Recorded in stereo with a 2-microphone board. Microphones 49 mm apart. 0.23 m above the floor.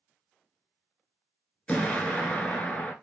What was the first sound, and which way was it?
An explosion, 30° left (ahead or behind).